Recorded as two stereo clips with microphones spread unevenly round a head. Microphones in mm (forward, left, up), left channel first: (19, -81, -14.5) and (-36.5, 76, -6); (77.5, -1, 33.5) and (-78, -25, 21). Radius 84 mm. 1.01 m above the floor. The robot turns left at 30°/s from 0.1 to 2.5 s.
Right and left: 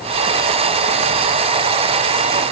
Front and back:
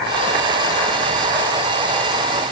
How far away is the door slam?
No door slam in this recording.